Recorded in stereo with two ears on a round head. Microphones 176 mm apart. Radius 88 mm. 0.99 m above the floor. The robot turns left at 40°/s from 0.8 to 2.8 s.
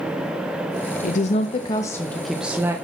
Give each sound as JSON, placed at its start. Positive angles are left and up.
{"t": 1.0, "sound": "a woman speaking", "azimuth_deg": 50, "distance_m": 0.6}